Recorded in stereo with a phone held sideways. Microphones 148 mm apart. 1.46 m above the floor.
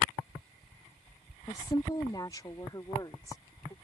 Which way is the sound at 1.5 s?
30° left (ahead or behind).